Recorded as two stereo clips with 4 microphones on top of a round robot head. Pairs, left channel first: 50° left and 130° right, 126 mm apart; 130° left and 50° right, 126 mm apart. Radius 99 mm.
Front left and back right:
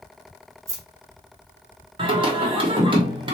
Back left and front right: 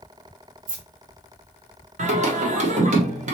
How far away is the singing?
About 1.2 m.